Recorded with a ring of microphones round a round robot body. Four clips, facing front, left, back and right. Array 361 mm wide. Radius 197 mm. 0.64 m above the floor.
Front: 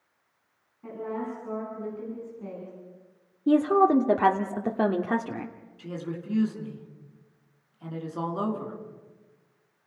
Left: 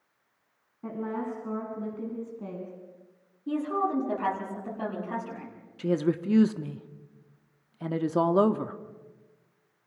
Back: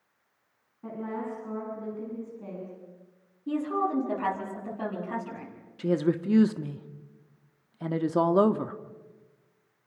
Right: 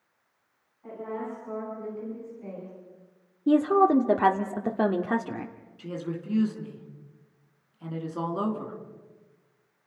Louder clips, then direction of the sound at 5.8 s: Left 8 dB, back 10 dB; 140° left.